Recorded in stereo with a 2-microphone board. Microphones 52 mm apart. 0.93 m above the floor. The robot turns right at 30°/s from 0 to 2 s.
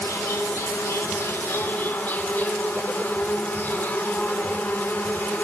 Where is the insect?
80° left, 0.9 m; by 5.4 s 140° left, 0.9 m.